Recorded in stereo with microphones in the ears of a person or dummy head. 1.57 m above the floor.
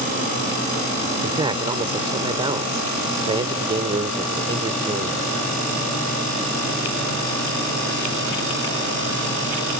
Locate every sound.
1.2 s a man speaking: 25° right (ahead or behind)